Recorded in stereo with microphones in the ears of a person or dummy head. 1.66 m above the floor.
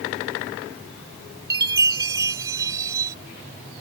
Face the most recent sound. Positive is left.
turn(degrees=-20)  # may be behind; listen again after turning